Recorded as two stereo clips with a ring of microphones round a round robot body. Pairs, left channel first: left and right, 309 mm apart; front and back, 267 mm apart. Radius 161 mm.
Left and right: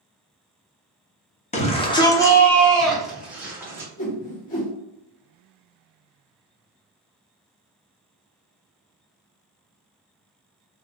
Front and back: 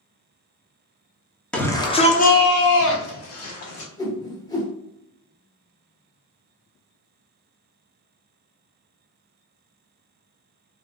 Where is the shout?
80° left, 0.7 m; by 3.9 s 10° right, 1.4 m.